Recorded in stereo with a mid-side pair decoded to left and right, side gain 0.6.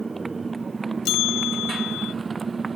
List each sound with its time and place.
0.0 s a motorcycle: 20° right; by 2.8 s 25° right
1.1 s a bell: 60° left